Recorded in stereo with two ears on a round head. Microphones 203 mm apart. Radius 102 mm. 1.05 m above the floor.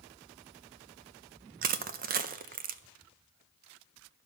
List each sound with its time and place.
1.6 s crushing: 40° right (ahead or behind), 0.5 m